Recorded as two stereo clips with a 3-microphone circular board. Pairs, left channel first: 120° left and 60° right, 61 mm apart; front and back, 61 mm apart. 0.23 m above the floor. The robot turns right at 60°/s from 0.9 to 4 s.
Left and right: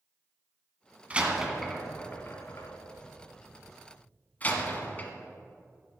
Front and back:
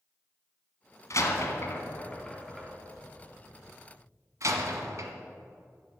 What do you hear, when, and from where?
1.1 s a door slam: straight ahead, 1.2 m; by 5.1 s 175° left, 1.2 m